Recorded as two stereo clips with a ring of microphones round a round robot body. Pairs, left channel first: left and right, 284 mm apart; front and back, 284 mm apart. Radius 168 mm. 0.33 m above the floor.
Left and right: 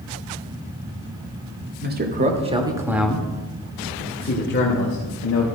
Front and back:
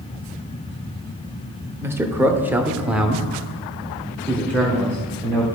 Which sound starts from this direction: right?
A man speaking, at 1.8 s.